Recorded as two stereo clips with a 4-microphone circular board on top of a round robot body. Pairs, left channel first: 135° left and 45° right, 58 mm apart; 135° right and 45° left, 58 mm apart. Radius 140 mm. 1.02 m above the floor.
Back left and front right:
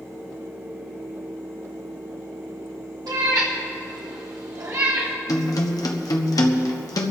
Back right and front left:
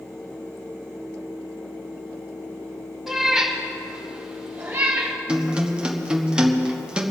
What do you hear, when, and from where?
3.1 s a cat meowing: 40° right, 2 m; by 5.2 s 5° left, 1.5 m
5.3 s a guitar: 120° left, 1.4 m